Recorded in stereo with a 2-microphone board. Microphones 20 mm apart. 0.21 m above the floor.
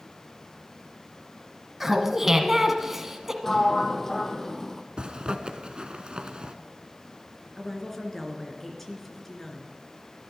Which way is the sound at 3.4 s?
20° left (ahead or behind).